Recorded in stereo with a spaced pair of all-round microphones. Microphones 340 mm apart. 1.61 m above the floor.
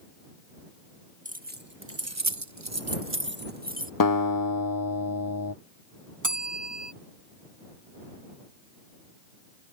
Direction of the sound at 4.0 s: 70° left (ahead or behind).